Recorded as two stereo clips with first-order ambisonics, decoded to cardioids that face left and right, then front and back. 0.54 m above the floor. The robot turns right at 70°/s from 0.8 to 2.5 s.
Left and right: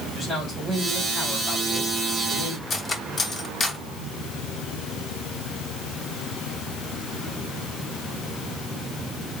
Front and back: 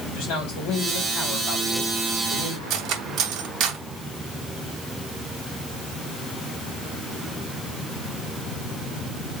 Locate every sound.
0.1 s a man speaking: straight ahead, 3 m; by 2.6 s 120° left, 3 m
2.7 s cutlery clinking: 155° left, 0.7 m